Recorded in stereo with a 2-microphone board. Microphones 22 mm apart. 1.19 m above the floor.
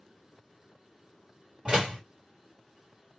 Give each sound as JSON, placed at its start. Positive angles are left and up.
{"t": 1.6, "sound": "a door slam", "side_deg": -40, "distance_m": 1.9}